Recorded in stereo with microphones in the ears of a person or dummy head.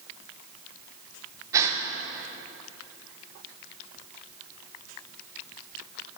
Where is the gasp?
10° right (ahead or behind), 0.7 m.